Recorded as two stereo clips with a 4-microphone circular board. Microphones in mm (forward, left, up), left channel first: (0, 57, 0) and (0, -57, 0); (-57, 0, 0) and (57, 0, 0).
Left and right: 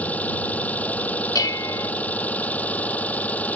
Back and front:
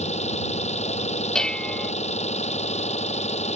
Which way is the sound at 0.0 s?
165° left.